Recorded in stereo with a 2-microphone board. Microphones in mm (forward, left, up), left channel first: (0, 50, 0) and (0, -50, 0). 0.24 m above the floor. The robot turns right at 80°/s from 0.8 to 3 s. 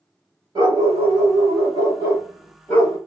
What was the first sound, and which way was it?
A dog barking, 130° right.